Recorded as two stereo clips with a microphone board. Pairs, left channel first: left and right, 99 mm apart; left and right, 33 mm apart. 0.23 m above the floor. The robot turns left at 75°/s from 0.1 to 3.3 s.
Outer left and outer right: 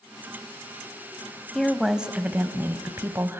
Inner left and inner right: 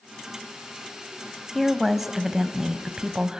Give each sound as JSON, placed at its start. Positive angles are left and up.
{"t": 1.6, "sound": "a woman speaking", "side_deg": 5, "distance_m": 1.0}